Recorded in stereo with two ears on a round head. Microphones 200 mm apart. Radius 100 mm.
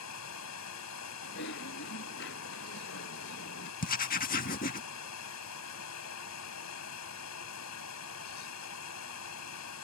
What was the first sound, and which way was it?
Running water, 85° left.